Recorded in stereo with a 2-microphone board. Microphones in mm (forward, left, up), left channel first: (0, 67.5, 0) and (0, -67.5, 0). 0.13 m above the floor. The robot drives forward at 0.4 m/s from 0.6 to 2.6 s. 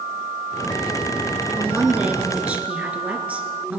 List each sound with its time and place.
1.6 s a woman speaking: 15° right (ahead or behind), 1.3 m; by 3.8 s 10° right (ahead or behind), 1.6 m